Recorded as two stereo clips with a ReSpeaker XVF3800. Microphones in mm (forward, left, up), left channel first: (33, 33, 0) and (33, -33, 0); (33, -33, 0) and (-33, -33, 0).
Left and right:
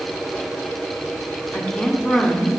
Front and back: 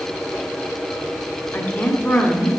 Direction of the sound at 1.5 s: 30° left.